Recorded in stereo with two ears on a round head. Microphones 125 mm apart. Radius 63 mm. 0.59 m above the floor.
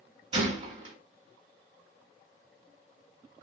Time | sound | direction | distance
0.3 | a gunshot | 40° right (ahead or behind) | 2 m